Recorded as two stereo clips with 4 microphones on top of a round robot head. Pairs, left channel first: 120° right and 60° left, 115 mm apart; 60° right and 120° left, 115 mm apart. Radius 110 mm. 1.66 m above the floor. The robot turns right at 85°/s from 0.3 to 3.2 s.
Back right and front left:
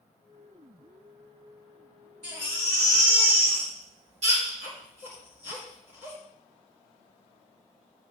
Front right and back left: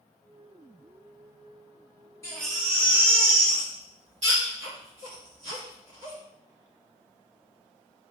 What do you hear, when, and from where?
2.2 s a baby crying: 5° left, 1.6 m; by 6.2 s 90° left, 1.6 m